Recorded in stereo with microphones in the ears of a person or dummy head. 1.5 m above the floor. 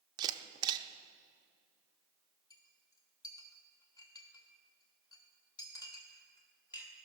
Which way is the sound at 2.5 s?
25° left (ahead or behind).